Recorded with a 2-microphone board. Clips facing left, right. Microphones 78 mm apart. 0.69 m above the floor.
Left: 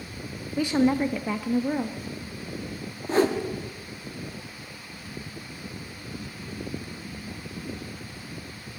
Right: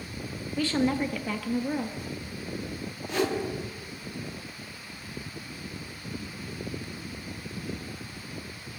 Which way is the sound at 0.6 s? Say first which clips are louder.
Left 4 dB; 15° left (ahead or behind).